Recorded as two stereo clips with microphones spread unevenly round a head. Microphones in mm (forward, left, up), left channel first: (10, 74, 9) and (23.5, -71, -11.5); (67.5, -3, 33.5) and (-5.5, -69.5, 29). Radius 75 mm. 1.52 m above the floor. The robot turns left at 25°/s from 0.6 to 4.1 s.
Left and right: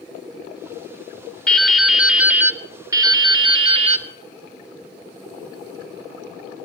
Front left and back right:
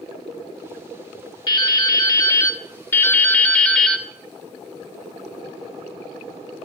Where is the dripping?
25° left, 1.1 m; by 4.1 s 40° right, 1.1 m.